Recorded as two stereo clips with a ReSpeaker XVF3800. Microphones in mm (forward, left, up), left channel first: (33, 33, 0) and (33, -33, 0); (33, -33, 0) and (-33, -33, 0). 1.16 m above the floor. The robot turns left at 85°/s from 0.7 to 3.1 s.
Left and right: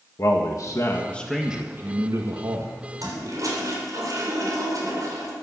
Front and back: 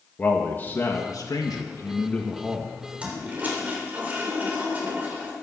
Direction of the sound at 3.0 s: 105° right.